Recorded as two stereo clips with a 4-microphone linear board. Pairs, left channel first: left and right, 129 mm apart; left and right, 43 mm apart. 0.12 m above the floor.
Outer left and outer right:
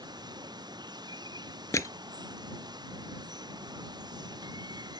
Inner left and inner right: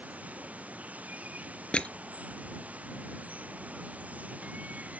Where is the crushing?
25° left (ahead or behind).